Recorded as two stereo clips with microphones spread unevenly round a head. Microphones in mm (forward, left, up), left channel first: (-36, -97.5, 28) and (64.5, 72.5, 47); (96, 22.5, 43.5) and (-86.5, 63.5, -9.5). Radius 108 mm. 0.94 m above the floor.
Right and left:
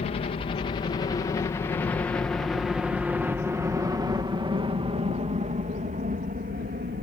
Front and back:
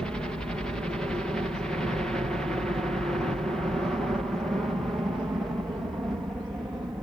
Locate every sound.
0.0 s a helicopter: 120° right; by 7.0 s 90° left